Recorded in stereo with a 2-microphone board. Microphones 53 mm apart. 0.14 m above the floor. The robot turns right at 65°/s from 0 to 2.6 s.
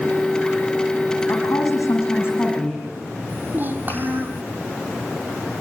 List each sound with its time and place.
1.3 s a woman speaking: 70° left, 5.5 m; by 2.8 s 155° left, 5.5 m
3.3 s a child speaking: 40° right (ahead or behind), 3.5 m